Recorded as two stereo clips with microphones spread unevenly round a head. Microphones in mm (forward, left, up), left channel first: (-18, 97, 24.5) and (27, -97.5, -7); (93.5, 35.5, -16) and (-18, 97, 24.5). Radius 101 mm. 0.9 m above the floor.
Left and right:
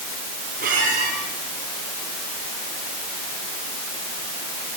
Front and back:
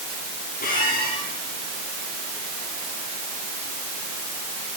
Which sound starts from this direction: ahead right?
A squeak, at 0.6 s.